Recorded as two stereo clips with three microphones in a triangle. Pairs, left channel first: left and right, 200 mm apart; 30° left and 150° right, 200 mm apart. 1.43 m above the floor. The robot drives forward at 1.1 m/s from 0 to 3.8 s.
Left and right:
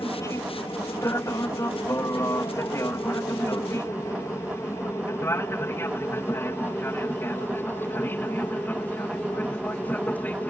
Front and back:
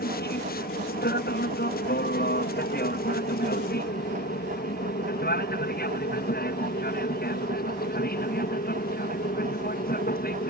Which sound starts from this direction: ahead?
An aircraft, at 0.0 s.